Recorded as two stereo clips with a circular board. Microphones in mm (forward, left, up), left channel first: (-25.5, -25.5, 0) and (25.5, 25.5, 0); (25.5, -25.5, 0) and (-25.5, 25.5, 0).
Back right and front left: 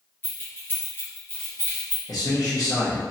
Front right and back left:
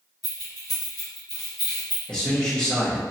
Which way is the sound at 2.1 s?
125° right.